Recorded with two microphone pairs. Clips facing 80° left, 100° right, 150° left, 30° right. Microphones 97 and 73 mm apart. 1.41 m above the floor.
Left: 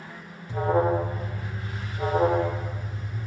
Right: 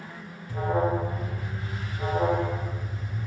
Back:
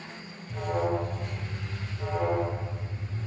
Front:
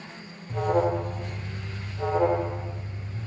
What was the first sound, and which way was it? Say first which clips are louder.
An alarm: left 3 dB, front 5 dB; 20° left.